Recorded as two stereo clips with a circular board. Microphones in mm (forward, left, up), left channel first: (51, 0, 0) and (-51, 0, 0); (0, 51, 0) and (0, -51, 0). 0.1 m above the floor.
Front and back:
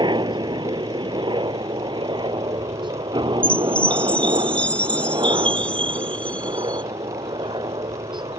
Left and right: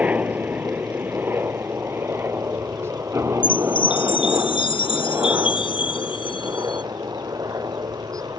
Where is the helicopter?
160° right; by 8.4 s 145° right.